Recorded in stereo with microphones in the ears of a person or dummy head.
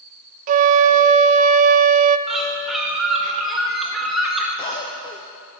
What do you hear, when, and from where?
0.5 s a flute: 40° right (ahead or behind), 0.6 m
2.3 s a bird: centre (ahead or behind), 1.7 m
4.6 s a cough: 25° left (ahead or behind), 0.6 m